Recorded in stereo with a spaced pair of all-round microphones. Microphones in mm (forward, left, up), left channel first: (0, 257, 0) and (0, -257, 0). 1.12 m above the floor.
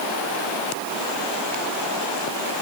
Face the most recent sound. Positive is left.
No sound to turn to.